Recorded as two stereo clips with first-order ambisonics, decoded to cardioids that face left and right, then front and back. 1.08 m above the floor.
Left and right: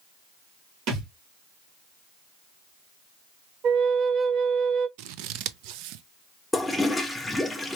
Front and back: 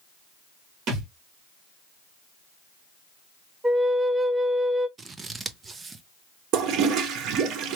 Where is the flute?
105° right, 0.5 m.